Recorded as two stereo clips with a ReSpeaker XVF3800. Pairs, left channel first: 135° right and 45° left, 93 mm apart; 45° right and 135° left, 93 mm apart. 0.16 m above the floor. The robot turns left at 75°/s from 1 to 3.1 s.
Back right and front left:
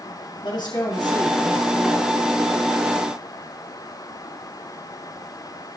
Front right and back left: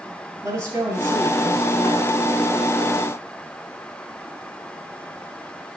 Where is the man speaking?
175° right, 3 m; by 2.1 s 105° left, 3 m.